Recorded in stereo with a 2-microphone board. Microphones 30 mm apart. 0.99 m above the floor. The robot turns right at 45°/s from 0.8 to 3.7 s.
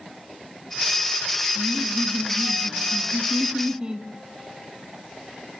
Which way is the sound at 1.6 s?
120° right.